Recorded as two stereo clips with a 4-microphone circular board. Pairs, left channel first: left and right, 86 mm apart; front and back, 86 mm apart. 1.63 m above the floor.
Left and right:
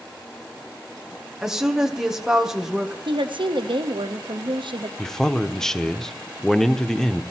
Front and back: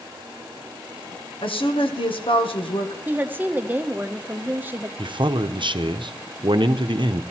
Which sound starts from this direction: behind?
A man speaking, at 5.0 s.